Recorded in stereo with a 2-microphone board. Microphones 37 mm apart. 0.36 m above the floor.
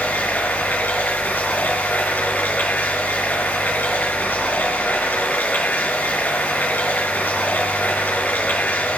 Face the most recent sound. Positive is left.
turn(degrees=65)  # may be behind; listen again after turning